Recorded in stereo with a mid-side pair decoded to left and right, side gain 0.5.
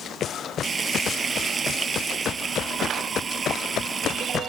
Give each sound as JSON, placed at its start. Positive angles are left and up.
{"t": 0.6, "sound": "frying", "azimuth_deg": -35}